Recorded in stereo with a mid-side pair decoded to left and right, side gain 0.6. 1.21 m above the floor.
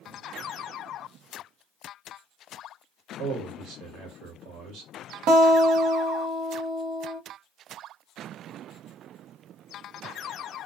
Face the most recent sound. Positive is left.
turn(degrees=-65)